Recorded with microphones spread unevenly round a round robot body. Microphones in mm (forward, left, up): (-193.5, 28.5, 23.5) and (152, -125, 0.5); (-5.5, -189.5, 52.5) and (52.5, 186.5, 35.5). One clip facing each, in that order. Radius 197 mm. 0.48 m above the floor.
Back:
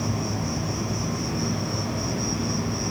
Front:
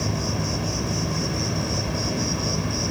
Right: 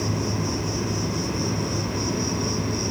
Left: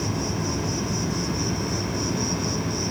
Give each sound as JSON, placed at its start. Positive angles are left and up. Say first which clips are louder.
{"t": 0.0, "sound": "an insect", "louder": "even, right 1 dB", "azimuth_deg": 0, "distance_m": 3.0}